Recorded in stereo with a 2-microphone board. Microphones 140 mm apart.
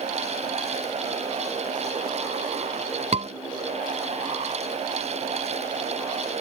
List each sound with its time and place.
3.1 s a scream: 50° right (ahead or behind)